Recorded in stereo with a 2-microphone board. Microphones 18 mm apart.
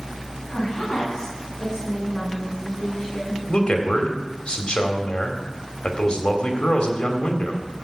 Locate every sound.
0.5 s a woman speaking: 50° left (ahead or behind), 6.5 m; by 3.4 s 30° left (ahead or behind), 9 m
3.5 s a man speaking: 70° left (ahead or behind), 2.5 m